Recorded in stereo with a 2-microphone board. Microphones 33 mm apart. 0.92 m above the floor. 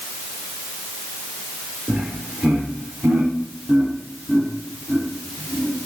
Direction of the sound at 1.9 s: 70° right (ahead or behind).